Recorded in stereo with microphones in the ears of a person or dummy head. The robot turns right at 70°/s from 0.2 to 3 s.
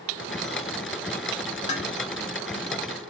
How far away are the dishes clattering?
About 1.0 m.